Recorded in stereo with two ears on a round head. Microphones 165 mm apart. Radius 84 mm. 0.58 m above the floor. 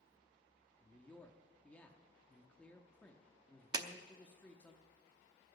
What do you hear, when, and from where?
0.8 s a man speaking: 10° left (ahead or behind), 0.8 m
3.7 s a clap: 20° right (ahead or behind), 0.7 m